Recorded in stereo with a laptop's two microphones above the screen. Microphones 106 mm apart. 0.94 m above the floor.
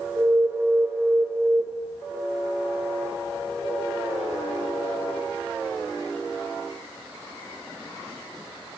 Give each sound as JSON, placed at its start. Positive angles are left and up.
{"t": 0.2, "sound": "an alarm", "side_deg": -35, "distance_m": 2.0}